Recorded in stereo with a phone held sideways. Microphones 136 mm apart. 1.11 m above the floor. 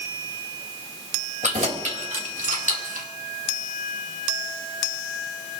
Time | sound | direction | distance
1.4 | keys jangling | 65° right (ahead or behind) | 3.5 m